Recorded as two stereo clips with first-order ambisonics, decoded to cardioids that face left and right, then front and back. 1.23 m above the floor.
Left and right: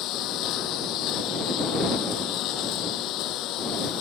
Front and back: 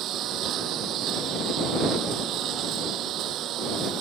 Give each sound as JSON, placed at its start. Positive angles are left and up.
{"t": 0.0, "sound": "a lawn mower", "azimuth_deg": 130}